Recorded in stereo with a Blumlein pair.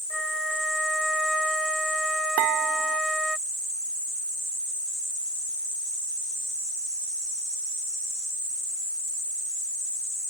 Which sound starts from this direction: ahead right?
Dishes clattering, at 2.4 s.